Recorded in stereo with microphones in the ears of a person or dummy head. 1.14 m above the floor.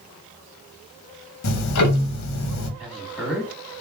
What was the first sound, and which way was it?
Ticking, 85° left.